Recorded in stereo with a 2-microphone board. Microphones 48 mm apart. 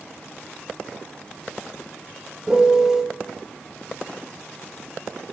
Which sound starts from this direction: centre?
A piano, at 2.5 s.